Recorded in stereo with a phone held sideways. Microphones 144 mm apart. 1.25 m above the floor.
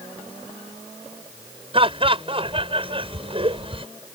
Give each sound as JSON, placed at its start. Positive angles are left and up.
{"t": 1.7, "sound": "laughter", "side_deg": -40}